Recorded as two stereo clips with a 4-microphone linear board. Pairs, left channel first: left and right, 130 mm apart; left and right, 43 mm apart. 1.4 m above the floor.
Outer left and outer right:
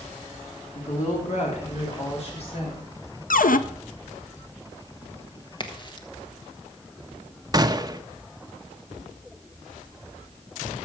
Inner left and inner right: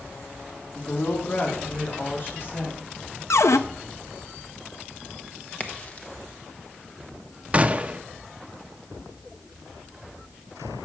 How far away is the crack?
About 1.3 m.